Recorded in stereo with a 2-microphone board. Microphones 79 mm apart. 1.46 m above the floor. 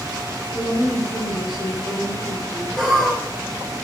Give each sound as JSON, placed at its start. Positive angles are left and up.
{"t": 0.5, "sound": "a woman speaking", "side_deg": 70, "distance_m": 1.6}
{"t": 2.8, "sound": "laughter", "side_deg": 0, "distance_m": 0.5}